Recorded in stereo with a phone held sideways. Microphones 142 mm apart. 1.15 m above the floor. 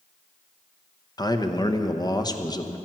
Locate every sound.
1.2 s a man speaking: 30° left (ahead or behind), 0.8 m